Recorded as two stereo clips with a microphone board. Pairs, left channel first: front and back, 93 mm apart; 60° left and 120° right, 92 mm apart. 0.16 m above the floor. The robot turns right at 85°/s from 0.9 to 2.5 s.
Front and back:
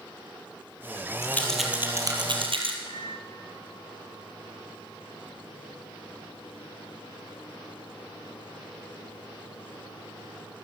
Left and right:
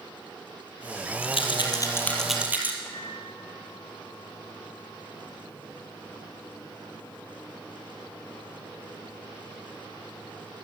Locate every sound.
1.2 s a rattle: 60° left, 4 m; by 2.8 s 170° left, 4 m
2.9 s a microwave: 10° right, 4 m